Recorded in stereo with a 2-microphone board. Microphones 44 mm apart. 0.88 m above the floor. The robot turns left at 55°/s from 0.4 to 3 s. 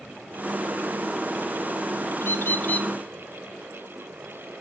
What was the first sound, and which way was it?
A bird, 65° left.